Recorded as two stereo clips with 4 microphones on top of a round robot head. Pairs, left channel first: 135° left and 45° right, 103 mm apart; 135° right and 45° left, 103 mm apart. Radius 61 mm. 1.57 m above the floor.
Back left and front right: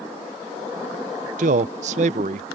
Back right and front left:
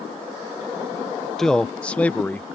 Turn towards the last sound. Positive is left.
turn(degrees=-60)